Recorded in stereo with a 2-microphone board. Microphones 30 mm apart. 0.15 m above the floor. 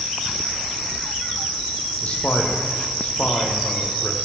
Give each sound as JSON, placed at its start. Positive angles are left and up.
{"t": 2.0, "sound": "a man speaking", "side_deg": 55, "distance_m": 4.5}